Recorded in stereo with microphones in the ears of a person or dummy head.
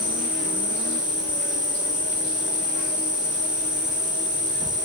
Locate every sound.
0.0 s an insect: 40° left (ahead or behind), 2.5 m